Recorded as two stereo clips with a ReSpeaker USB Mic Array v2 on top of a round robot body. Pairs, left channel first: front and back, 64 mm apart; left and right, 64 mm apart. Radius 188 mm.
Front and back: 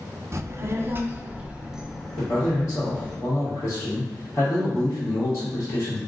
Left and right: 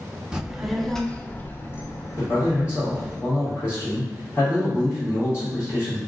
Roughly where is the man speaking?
Ahead left.